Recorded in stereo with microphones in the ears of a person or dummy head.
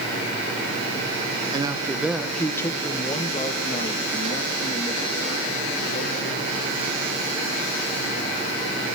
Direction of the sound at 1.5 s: 25° right (ahead or behind).